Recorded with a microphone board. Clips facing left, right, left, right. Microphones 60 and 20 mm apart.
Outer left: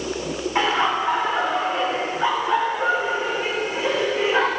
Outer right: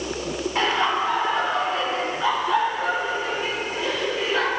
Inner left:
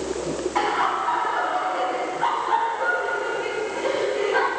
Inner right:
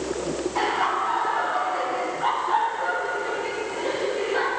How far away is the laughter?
About 7.5 m.